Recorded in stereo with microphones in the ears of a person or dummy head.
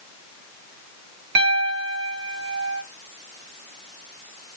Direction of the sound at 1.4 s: 60° right (ahead or behind).